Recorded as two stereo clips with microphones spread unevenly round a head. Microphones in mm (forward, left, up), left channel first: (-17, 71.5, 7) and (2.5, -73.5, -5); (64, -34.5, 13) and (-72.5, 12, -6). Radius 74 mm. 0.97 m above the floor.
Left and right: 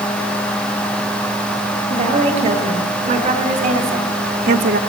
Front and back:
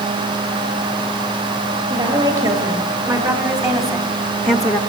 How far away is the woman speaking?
About 5 m.